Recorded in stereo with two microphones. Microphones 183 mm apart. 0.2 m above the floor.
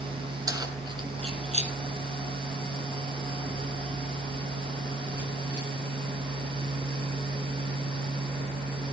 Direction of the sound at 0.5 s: 20° right (ahead or behind).